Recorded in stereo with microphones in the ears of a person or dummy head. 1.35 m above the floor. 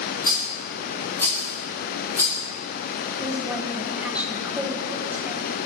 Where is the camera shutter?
No camera shutter in this recording.